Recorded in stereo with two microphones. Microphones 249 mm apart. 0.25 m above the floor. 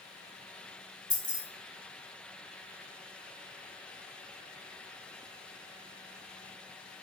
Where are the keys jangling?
30° left (ahead or behind), 1.1 m.